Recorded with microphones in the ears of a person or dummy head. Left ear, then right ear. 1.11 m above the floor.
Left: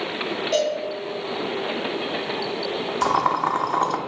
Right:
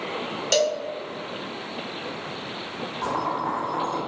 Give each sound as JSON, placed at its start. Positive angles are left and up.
{"t": 0.5, "sound": "a cowbell", "side_deg": -45, "distance_m": 1.0}
{"t": 3.0, "sound": "boiling", "side_deg": 55, "distance_m": 0.6}